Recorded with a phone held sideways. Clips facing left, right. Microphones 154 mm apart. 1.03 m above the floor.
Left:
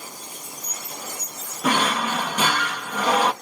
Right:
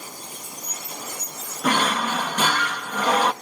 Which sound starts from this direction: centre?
A drawer, at 1.6 s.